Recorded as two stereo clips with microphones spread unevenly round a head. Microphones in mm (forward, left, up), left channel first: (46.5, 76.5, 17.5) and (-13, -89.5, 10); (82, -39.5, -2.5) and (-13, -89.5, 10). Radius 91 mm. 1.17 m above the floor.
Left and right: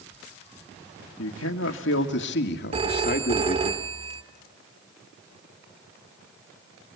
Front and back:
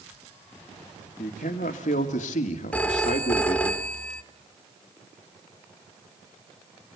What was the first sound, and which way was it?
A man speaking, 65° left.